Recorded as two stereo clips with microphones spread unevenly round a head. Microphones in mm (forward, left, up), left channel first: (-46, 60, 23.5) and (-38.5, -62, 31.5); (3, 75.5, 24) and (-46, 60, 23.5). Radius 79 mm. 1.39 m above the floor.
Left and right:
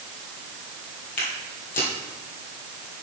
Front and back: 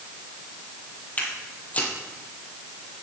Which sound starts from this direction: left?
Footsteps, at 1.2 s.